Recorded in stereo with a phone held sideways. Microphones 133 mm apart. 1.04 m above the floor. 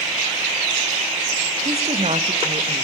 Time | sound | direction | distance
1.6 | a woman speaking | 50° right (ahead or behind) | 1.5 m